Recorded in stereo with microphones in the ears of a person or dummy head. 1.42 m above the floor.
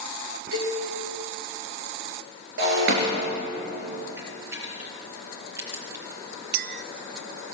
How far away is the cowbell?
About 9.5 m.